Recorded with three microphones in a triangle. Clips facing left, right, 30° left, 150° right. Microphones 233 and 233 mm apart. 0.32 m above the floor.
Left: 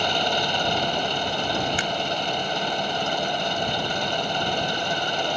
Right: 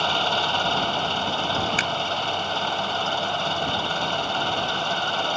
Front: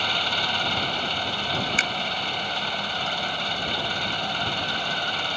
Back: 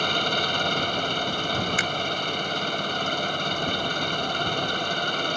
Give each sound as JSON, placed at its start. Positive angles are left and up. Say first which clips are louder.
{"t": 0.0, "sound": "an engine running", "louder": "left 2 dB, back 4 dB", "azimuth_deg": 165}
{"t": 1.8, "sound": "a finger snap", "louder": "left 1 dB, back 2 dB", "azimuth_deg": -30}